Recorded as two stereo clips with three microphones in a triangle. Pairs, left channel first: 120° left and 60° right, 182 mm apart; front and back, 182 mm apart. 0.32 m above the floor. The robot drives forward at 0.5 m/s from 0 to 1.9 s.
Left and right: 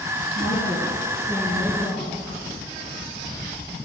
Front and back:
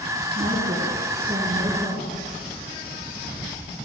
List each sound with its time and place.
0.3 s a woman speaking: 150° left, 2.5 m; by 2.2 s 155° left, 3.5 m